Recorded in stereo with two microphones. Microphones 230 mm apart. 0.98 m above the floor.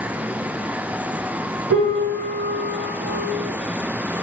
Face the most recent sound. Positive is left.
turn(degrees=-55)  # may be behind; listen again after turning